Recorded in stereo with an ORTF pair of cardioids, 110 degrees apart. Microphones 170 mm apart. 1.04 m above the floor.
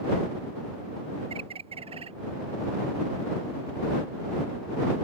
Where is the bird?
35° right.